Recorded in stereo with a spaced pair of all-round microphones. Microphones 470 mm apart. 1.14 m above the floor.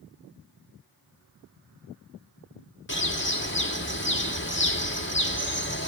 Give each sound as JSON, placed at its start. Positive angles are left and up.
{"t": 2.9, "sound": "a bird", "side_deg": 25, "distance_m": 1.5}